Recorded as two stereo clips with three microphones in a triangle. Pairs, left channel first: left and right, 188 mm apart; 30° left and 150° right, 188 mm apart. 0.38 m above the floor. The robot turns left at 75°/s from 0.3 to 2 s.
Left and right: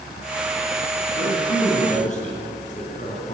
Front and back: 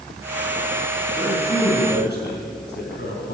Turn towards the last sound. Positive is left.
turn(degrees=45)